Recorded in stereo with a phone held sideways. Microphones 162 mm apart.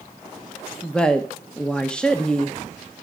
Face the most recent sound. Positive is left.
turn(degrees=5)  # may be behind; listen again after turning